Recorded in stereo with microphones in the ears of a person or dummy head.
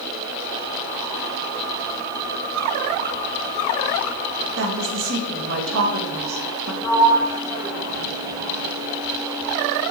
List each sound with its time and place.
4.6 s a woman speaking: 75° right (ahead or behind), 2 m
6.8 s a sliding door: 20° left (ahead or behind), 3 m